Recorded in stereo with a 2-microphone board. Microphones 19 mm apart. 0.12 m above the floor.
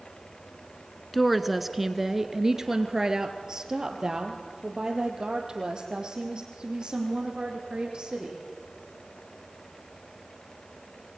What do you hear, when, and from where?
1.1 s a woman speaking: centre (ahead or behind), 1.1 m; by 8.4 s 45° right (ahead or behind), 5.5 m